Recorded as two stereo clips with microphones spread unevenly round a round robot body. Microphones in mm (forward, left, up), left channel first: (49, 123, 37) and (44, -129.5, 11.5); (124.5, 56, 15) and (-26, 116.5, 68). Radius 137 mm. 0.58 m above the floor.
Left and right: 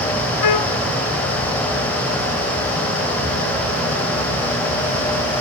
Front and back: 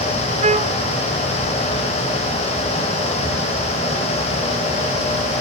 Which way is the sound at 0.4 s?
115° left.